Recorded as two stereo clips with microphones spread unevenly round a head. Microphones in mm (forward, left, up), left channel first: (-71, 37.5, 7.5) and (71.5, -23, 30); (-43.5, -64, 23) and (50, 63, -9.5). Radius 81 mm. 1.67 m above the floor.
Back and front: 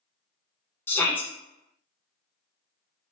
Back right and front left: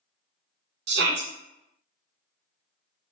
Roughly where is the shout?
Left.